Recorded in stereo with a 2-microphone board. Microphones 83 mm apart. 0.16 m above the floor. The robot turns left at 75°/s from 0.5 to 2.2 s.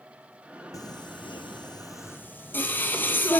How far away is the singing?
About 0.7 m.